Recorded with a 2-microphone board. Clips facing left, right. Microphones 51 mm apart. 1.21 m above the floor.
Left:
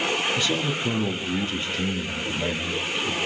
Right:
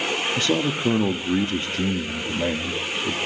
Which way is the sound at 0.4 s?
40° right (ahead or behind).